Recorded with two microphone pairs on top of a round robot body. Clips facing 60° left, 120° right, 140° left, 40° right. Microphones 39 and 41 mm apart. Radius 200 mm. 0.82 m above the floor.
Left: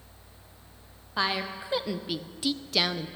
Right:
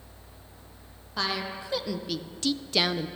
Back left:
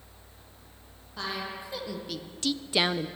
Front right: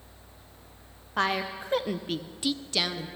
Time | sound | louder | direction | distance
1.2 | a woman speaking | left 2 dB, front right 7 dB | 15° right | 1.0 m